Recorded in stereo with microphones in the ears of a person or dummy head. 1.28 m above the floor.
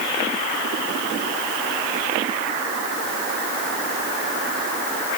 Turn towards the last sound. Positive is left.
No sound to turn to.